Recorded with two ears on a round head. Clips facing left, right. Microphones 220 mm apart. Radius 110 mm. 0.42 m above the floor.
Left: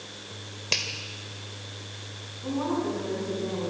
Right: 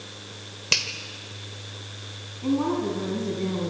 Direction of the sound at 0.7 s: 15° right (ahead or behind).